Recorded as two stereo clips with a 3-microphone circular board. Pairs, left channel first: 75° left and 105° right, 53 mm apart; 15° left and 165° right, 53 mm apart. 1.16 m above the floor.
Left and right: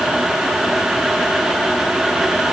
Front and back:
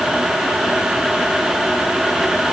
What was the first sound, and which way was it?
Only background noise.